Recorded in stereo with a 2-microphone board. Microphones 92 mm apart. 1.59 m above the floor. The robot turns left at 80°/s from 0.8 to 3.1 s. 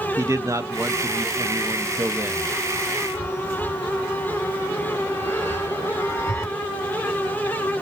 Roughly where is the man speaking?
Ahead right.